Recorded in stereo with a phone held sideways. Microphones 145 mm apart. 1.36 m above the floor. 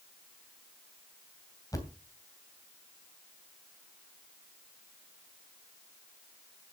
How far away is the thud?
About 2.5 m.